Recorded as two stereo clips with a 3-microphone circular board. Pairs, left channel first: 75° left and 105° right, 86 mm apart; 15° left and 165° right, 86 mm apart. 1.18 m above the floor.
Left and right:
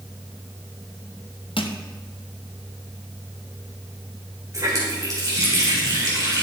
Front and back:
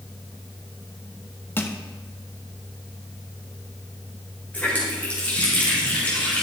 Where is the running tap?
55° right, 3.5 m.